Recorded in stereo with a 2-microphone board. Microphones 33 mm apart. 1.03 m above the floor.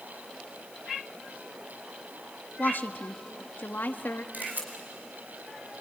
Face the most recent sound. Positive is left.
turn(degrees=-60)  # may be behind; listen again after turning